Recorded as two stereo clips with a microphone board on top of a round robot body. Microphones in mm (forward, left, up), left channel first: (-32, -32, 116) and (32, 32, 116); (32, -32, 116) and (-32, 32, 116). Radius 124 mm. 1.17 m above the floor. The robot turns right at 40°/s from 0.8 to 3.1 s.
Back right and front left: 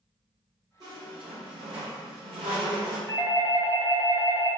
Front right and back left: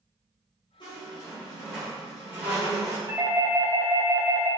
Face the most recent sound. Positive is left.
turn(degrees=175)